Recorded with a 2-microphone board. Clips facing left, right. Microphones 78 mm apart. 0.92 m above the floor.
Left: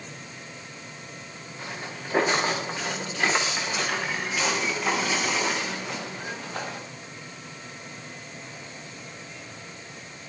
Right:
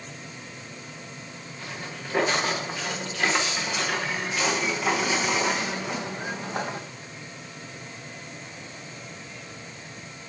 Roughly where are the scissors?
I don't hear scissors.